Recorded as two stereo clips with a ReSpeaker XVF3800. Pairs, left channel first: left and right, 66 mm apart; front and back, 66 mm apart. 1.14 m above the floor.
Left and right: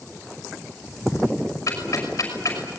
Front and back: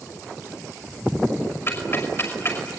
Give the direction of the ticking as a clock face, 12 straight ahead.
10 o'clock.